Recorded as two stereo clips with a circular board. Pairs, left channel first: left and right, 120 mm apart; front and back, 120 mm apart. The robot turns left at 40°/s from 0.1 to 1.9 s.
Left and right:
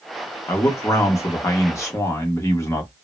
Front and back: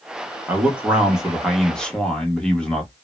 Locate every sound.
0.5 s a man speaking: 130° left, 0.9 m; by 2.9 s 70° left, 0.9 m